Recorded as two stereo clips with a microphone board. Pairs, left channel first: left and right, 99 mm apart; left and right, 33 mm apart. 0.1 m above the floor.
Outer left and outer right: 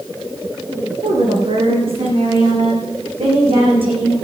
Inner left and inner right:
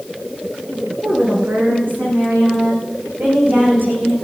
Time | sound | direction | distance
1.0 | a woman speaking | 70° right (ahead or behind) | 7 m